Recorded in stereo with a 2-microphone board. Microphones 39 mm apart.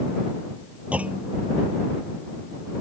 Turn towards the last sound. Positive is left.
turn(degrees=-40)  # may be behind; listen again after turning